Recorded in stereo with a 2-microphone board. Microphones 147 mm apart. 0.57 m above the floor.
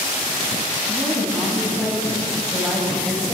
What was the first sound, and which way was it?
A woman speaking, 5° left (ahead or behind).